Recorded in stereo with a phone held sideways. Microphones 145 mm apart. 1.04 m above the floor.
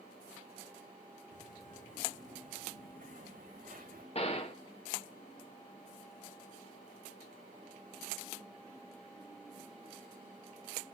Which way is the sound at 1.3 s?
60° right (ahead or behind).